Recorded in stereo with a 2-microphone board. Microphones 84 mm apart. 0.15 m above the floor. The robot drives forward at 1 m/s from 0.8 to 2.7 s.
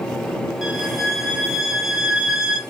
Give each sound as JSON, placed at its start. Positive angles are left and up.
{"t": 0.6, "sound": "a violin", "side_deg": -5, "distance_m": 3.0}